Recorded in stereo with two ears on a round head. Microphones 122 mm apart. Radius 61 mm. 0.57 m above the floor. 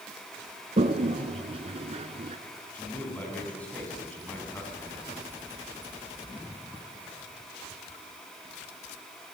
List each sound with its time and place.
0.8 s a toilet flushing: 45° right (ahead or behind), 1.5 m
2.7 s a man speaking: 10° left (ahead or behind), 6 m